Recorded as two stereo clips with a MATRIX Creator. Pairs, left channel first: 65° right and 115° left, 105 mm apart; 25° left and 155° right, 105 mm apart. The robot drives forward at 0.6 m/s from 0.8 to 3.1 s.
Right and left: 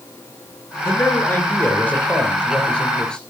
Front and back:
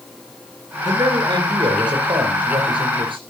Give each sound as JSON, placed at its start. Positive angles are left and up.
{"t": 0.8, "sound": "a man speaking", "azimuth_deg": -130, "distance_m": 3.0}